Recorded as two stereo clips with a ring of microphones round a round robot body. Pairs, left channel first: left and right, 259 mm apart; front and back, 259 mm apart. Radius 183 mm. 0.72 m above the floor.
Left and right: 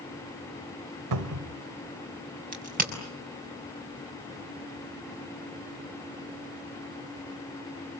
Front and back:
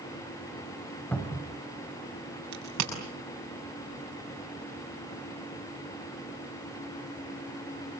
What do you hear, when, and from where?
1.1 s a cupboard door: 85° right, 1.5 m
2.5 s a crack: 145° right, 6 m